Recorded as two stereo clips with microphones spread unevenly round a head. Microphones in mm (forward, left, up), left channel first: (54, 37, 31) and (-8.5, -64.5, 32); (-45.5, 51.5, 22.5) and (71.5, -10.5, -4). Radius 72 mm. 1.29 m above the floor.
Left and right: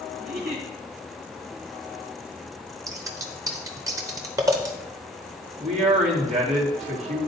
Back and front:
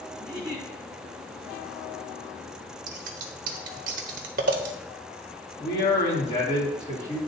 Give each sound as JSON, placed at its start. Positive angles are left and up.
{"t": 0.2, "sound": "a giggle", "azimuth_deg": -140, "distance_m": 2.0}
{"t": 2.9, "sound": "scissors", "azimuth_deg": -65, "distance_m": 0.8}
{"t": 5.6, "sound": "a man speaking", "azimuth_deg": -155, "distance_m": 1.9}